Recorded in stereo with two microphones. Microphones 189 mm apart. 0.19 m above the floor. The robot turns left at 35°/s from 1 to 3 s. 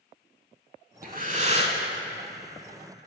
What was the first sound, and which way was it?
Breathing, 45° right (ahead or behind).